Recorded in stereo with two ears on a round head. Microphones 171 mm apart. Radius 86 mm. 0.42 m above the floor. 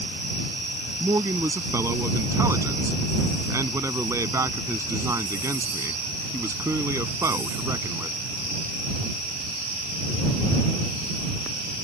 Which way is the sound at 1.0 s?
15° right (ahead or behind).